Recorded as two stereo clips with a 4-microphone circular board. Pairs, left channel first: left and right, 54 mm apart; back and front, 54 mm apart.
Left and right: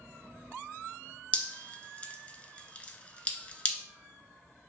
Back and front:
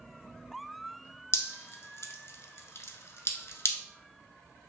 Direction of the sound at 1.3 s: 150° left.